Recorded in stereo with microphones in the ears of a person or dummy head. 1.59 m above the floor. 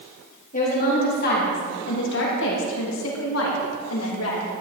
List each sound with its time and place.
0.5 s a woman speaking: 40° left (ahead or behind), 3 m; by 4.5 s 80° left, 3 m